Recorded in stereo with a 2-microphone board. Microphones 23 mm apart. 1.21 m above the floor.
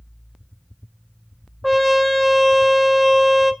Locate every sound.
1.6 s a trumpet: 5° left (ahead or behind), 1.0 m